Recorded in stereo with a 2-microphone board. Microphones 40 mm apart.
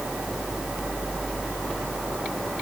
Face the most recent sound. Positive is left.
No sound to turn to.